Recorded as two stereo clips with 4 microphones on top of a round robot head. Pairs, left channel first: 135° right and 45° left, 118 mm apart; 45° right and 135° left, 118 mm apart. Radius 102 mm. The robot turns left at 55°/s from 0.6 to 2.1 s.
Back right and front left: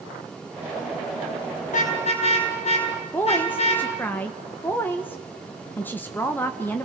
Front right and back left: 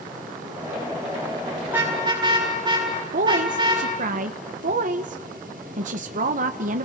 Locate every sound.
1.7 s a car horn: 145° right, 9 m; by 3.9 s 170° right, 9 m
3.1 s a woman speaking: 150° left, 1.3 m